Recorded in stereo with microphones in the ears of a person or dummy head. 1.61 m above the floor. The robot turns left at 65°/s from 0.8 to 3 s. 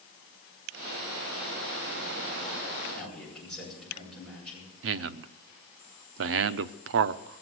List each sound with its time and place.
2.9 s a man speaking: centre (ahead or behind), 9.5 m; by 4.7 s 5° left (ahead or behind), 9.5 m
4.8 s a man speaking: 60° right (ahead or behind), 0.6 m